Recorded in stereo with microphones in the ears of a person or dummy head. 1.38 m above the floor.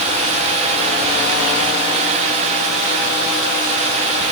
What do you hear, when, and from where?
Only background noise.